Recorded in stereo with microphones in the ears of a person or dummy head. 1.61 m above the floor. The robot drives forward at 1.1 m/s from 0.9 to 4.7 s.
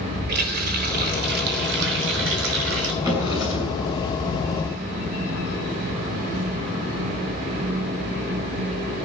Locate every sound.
0.3 s a running tap: 60° right (ahead or behind), 4 m; by 2.9 s 75° right (ahead or behind), 3.5 m
3.0 s a drawer: 20° right (ahead or behind), 7.5 m